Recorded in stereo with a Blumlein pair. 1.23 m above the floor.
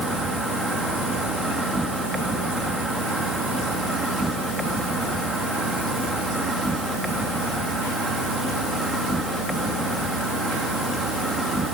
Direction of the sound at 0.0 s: 5° right.